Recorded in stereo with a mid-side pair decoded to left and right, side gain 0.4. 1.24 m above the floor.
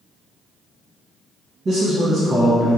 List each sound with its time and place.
1.6 s a man speaking: 60° right, 1.0 m